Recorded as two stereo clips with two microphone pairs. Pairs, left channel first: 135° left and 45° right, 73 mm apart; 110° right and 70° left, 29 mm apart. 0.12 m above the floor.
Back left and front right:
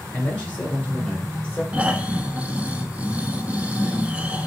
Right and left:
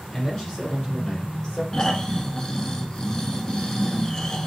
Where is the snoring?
80° right, 0.6 m.